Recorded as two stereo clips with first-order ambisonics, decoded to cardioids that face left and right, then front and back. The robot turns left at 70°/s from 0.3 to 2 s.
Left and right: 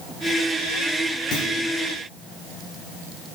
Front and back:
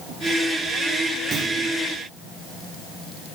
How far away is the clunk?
About 5.5 m.